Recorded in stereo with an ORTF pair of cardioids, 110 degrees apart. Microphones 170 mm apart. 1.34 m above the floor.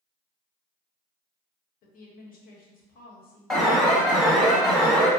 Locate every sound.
1.8 s a woman speaking: 60° left, 0.8 m
3.5 s an alarm: straight ahead, 0.9 m